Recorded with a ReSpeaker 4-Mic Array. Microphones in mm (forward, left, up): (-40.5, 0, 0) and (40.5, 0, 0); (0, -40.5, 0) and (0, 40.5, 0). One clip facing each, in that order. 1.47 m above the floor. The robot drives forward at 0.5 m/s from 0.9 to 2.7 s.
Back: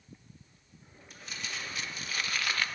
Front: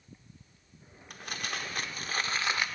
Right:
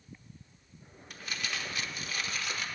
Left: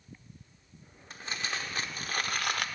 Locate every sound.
1.1 s crumpling: 30° left, 1.0 m; by 2.7 s 75° left, 0.5 m